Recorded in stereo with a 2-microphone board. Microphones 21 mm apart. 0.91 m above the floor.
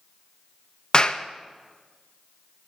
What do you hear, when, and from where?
0.9 s a clap: 35° left (ahead or behind), 0.6 m